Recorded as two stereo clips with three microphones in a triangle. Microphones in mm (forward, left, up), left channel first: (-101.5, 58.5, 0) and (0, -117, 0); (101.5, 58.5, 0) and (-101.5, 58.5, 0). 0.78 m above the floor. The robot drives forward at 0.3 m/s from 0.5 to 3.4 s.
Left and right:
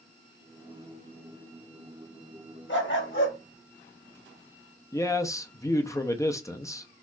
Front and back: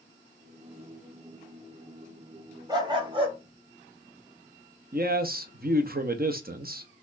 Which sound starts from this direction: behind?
A man speaking, at 4.9 s.